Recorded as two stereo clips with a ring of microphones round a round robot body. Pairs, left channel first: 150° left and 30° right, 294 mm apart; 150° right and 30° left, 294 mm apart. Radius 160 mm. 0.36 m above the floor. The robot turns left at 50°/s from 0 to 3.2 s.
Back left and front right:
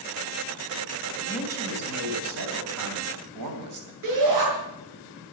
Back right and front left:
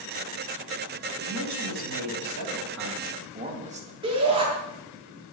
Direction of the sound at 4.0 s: 45° right.